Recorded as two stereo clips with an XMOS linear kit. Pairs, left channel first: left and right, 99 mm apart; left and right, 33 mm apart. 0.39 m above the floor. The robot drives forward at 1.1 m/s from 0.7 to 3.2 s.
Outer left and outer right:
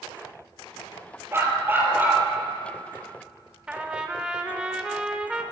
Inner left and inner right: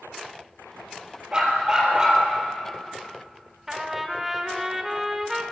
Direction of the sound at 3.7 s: 10° right (ahead or behind).